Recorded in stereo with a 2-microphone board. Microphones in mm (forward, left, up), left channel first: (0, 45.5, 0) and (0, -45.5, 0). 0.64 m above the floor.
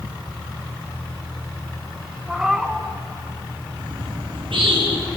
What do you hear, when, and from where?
2.3 s a cat meowing: 5° right (ahead or behind), 2.0 m
3.8 s a bird: 75° right (ahead or behind), 8.5 m